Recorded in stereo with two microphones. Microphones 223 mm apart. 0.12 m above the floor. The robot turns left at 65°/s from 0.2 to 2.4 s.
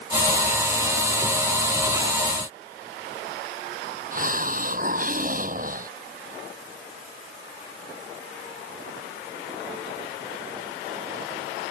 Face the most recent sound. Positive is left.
turn(degrees=-40)  # may be behind; listen again after turning